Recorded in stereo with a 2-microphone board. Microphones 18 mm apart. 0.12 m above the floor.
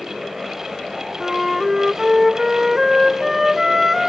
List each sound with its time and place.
1.2 s a flute: 15° right (ahead or behind), 0.7 m